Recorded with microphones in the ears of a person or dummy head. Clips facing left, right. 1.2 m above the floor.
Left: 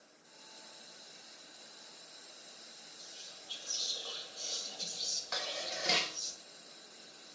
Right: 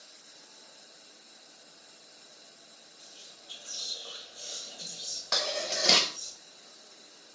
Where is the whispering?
25° right (ahead or behind), 3.5 m.